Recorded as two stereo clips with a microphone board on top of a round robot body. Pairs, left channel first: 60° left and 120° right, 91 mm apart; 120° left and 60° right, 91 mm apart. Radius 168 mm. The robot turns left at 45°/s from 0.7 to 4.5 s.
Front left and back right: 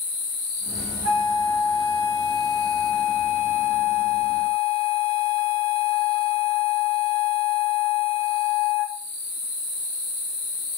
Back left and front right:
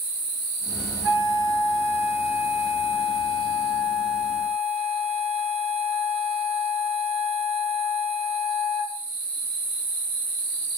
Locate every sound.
1.0 s a flute: 65° left, 0.8 m; by 9.0 s 90° right, 0.8 m